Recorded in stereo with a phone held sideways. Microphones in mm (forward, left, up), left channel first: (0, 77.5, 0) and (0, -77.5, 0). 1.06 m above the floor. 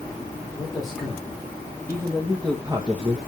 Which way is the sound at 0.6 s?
20° left (ahead or behind).